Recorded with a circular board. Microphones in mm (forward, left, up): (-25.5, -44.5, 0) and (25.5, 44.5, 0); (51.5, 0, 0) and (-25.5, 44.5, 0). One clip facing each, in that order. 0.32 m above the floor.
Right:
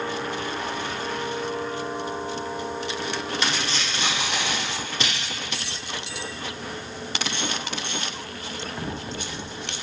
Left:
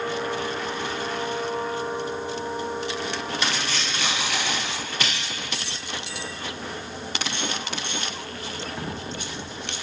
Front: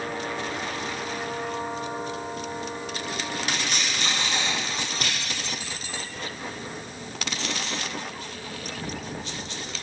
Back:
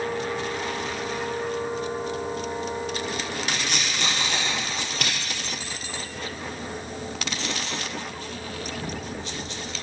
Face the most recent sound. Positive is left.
turn(degrees=175)